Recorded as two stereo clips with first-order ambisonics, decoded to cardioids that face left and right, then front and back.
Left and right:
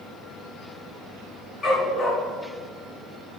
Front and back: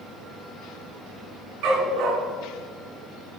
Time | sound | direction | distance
1.6 | a dog barking | 165° left | 3 m